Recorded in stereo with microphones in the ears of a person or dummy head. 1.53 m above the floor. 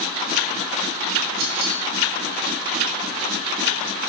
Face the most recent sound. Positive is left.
turn(degrees=-60)  # may be behind; listen again after turning